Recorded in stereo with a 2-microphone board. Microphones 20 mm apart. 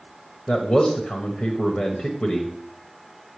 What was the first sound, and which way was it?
A man speaking, 55° left (ahead or behind).